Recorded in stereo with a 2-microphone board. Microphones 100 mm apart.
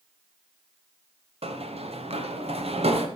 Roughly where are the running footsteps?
Right.